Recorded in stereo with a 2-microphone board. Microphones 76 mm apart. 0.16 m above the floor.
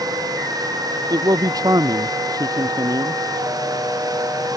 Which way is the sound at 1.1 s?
50° right (ahead or behind).